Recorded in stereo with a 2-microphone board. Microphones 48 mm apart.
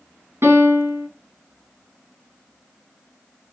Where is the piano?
65° right (ahead or behind), 1.9 m.